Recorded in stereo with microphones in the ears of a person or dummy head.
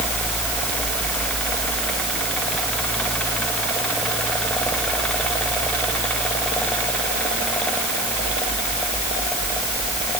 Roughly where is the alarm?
I don't hear an alarm.